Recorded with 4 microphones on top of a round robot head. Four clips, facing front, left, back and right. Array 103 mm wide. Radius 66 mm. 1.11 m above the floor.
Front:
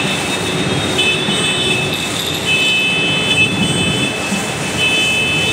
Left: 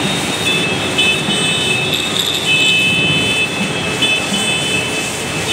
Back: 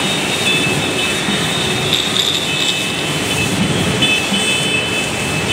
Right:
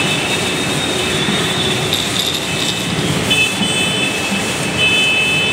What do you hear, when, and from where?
1.9 s a rattle: 165° right, 2 m